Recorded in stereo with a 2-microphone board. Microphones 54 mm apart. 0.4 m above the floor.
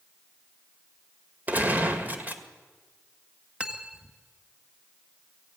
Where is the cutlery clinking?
20° right (ahead or behind), 1.6 m.